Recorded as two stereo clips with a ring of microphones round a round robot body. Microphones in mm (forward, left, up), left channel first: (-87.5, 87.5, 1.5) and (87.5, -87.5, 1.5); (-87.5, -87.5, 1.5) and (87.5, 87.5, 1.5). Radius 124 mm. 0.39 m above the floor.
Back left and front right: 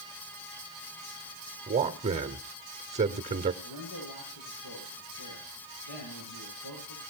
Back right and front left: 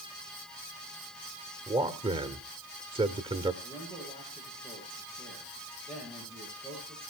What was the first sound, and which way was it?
A man speaking, 10° right.